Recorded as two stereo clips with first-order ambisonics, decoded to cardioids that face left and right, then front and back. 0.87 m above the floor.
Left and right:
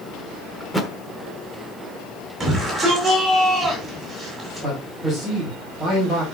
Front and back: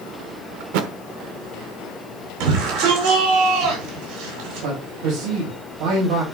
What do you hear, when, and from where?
0.6 s a thud: 175° left, 1.1 m
2.4 s a shout: 175° right, 8 m
4.6 s a man speaking: 170° left, 6 m